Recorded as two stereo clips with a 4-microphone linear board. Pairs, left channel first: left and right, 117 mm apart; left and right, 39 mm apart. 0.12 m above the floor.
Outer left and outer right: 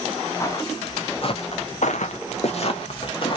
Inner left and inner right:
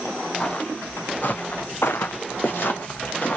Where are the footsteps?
25° left (ahead or behind), 0.9 m; by 3.4 s 45° left (ahead or behind), 1.0 m.